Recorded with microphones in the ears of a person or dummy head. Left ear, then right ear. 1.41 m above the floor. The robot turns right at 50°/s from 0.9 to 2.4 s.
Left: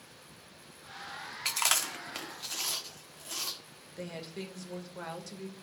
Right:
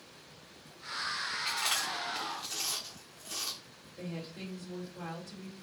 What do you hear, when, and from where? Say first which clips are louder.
1.4 s chewing: left 4 dB; 60° left (ahead or behind), 0.6 m; by 3.6 s 15° left (ahead or behind), 0.6 m
4.0 s a woman speaking: left 2 dB; 80° left, 1.2 m